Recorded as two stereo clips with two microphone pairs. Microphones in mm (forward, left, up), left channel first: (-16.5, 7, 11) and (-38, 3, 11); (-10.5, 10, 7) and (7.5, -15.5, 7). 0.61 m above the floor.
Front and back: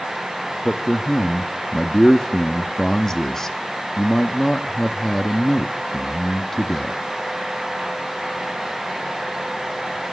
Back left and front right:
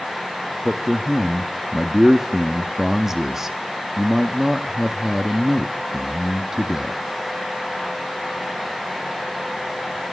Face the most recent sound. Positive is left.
turn(degrees=-10)